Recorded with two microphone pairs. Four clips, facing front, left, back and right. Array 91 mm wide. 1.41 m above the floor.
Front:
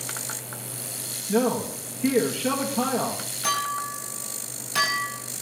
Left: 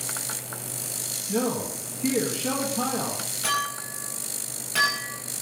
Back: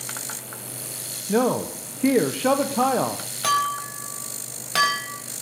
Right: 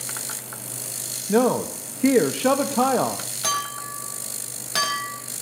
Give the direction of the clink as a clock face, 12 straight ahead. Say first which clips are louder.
Right 1 dB, back 4 dB; 5 o'clock.